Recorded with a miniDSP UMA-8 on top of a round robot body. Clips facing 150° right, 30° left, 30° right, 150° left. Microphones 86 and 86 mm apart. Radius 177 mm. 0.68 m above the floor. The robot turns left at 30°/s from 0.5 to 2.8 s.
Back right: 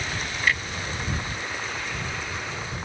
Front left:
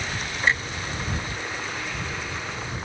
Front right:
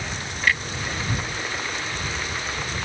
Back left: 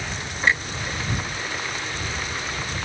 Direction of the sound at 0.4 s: 90° left.